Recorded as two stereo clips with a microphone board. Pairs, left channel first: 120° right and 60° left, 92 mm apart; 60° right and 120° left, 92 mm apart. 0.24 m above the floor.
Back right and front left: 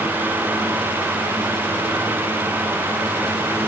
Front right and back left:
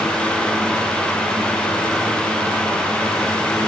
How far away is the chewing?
I don't hear chewing.